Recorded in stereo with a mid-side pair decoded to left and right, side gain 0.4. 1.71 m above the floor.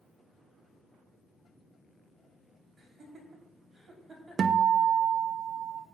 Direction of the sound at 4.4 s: 55° right.